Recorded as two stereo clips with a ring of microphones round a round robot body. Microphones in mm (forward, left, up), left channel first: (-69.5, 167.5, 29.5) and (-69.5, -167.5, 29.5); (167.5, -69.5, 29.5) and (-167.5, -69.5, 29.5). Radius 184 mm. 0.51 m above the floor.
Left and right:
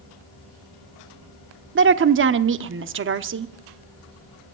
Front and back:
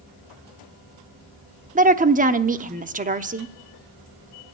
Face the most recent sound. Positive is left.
turn(degrees=-125)